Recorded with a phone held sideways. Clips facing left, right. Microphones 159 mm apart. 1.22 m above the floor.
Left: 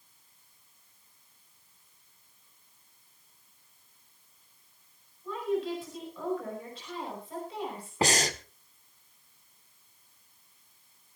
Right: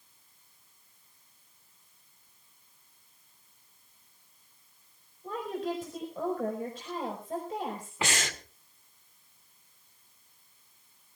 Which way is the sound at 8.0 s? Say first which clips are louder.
Left 6 dB; 40° left (ahead or behind).